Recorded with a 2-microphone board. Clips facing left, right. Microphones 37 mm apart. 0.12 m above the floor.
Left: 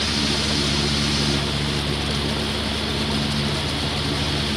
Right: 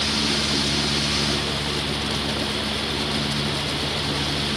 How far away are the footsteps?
I don't hear footsteps.